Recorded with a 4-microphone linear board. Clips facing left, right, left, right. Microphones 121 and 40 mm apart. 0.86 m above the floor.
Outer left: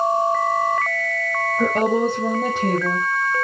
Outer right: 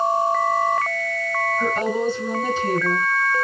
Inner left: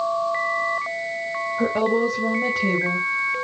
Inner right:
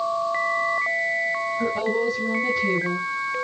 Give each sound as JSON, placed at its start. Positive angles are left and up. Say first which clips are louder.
{"t": 1.6, "sound": "a woman speaking", "louder": "outer left 6 dB, inner left 6 dB", "side_deg": 80, "distance_m": 3.0}